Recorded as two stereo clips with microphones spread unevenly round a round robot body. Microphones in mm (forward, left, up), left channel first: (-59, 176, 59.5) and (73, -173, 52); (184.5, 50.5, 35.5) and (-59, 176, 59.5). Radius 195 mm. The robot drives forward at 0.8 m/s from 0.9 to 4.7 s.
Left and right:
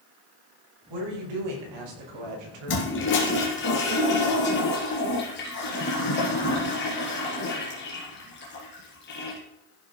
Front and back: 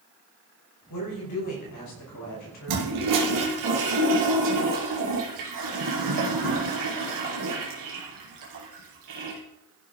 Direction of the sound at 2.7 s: 170° left.